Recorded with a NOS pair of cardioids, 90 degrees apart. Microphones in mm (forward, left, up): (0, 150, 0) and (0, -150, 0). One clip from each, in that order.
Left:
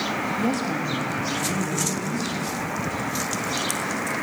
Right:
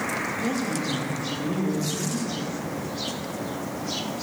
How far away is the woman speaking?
About 1.5 m.